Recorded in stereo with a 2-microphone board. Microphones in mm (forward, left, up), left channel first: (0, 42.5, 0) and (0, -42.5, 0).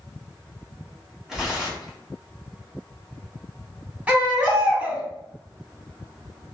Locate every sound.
1.3 s tearing paper: 5° right (ahead or behind), 0.8 m
4.1 s a baby crying: 20° right (ahead or behind), 0.9 m